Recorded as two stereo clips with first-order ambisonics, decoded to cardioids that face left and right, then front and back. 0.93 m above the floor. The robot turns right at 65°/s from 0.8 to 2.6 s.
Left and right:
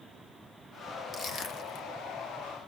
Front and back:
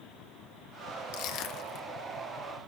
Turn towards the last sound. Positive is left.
turn(degrees=110)